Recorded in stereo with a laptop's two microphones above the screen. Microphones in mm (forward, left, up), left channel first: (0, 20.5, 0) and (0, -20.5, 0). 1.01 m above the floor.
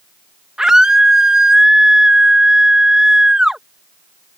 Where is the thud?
No thud in this recording.